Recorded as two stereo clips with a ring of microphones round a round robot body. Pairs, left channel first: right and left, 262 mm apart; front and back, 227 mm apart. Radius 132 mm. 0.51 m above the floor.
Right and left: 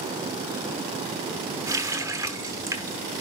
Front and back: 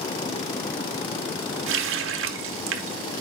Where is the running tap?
170° left, 0.9 m.